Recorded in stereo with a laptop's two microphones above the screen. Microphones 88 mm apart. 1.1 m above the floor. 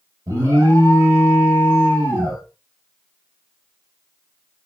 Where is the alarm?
40° right (ahead or behind), 2.5 m.